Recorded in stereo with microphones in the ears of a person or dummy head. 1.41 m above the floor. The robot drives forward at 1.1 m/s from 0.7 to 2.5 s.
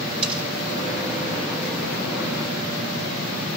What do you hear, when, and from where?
0.2 s cutlery clinking: 40° right (ahead or behind), 6 m